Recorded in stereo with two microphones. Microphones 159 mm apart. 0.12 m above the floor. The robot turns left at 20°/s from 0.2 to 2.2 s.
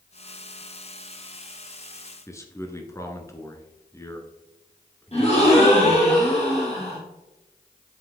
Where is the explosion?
No explosion in this recording.